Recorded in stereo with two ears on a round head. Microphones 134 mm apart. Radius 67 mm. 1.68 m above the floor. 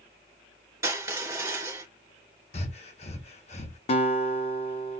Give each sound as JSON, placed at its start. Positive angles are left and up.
{"t": 0.8, "sound": "crushing", "side_deg": -20, "distance_m": 2.0}
{"t": 2.5, "sound": "breathing", "side_deg": 45, "distance_m": 1.0}
{"t": 3.9, "sound": "a guitar", "side_deg": 40, "distance_m": 0.8}